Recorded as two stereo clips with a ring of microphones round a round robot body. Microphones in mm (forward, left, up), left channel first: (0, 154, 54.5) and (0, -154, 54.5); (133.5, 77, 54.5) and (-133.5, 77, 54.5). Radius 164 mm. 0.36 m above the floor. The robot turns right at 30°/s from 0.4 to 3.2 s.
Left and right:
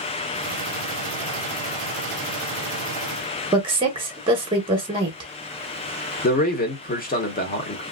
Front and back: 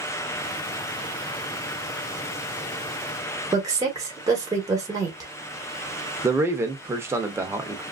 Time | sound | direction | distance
3.5 | a woman speaking | 130° right | 0.9 m
6.2 | a man speaking | 110° left | 0.8 m